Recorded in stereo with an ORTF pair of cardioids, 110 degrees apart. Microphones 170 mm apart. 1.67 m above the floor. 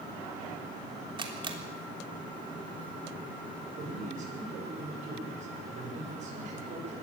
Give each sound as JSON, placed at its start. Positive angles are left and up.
{"t": 1.2, "sound": "a camera shutter", "azimuth_deg": -30, "distance_m": 3.5}
{"t": 3.8, "sound": "a man speaking", "azimuth_deg": -45, "distance_m": 7.5}